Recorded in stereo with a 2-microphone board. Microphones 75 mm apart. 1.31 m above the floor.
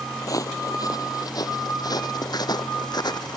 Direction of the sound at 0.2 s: 50° left (ahead or behind).